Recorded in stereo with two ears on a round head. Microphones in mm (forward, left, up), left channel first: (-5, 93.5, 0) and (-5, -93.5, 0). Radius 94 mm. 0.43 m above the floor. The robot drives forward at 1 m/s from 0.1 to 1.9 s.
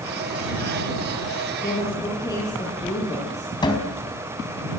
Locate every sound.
1.6 s a woman speaking: 15° left (ahead or behind), 9.5 m
3.6 s a cupboard door: 20° left (ahead or behind), 3.5 m